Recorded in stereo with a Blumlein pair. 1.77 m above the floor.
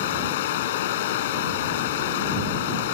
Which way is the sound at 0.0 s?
55° left.